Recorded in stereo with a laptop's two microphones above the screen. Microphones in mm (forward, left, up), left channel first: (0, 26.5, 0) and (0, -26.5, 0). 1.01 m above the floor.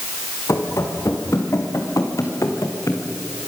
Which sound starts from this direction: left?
Running footsteps, at 0.5 s.